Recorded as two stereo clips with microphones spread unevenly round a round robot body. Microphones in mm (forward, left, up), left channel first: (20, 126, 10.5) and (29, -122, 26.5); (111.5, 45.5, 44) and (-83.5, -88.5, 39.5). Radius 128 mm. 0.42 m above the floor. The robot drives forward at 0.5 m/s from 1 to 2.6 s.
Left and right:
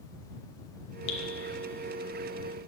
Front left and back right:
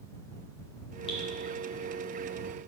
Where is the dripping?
105° left, 0.9 m; by 1.2 s 110° left, 0.9 m.